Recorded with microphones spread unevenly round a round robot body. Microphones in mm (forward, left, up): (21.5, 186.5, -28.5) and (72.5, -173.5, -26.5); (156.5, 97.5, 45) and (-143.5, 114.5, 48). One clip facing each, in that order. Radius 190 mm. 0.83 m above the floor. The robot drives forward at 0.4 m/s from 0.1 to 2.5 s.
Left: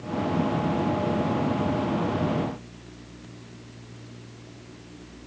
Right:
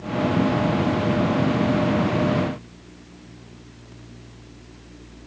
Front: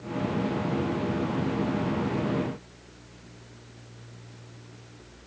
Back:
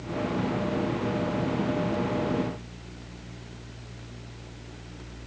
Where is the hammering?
No hammering in this recording.